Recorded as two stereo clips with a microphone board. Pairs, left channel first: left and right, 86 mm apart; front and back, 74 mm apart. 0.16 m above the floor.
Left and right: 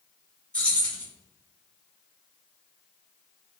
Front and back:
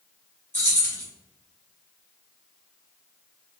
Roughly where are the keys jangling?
Ahead left.